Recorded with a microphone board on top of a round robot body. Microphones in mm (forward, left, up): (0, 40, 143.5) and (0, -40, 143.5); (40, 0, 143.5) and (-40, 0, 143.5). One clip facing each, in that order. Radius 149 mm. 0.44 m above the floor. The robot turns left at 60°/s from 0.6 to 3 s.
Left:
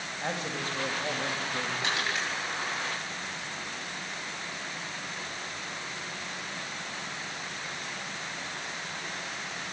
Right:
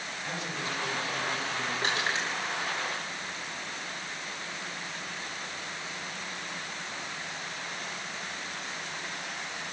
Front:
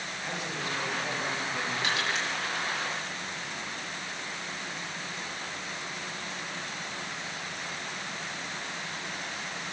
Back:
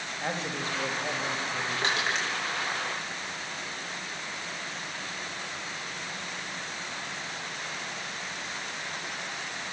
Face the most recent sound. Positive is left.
turn(degrees=160)